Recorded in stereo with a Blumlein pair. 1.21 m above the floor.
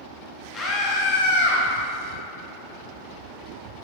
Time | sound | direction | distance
0.5 | a scream | 20° left | 1.1 m